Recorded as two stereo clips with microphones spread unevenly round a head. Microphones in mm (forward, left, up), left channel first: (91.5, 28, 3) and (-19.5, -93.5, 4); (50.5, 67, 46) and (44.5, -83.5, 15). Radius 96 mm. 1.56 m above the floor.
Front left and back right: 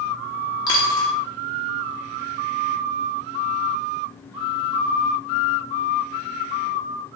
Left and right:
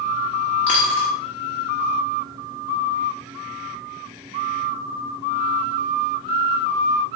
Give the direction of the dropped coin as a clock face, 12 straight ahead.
10 o'clock.